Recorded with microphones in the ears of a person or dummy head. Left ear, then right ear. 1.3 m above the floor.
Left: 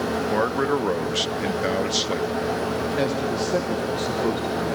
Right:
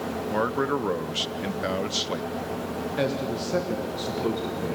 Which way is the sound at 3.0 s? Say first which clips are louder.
Even; centre (ahead or behind).